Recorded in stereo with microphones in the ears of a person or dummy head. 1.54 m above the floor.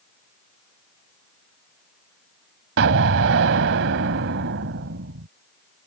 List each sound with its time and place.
2.8 s an explosion: 70° right (ahead or behind)